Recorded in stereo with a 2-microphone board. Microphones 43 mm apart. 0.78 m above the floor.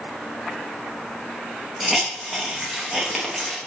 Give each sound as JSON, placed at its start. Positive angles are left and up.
{"t": 1.8, "sound": "a hiss", "side_deg": 0, "distance_m": 0.7}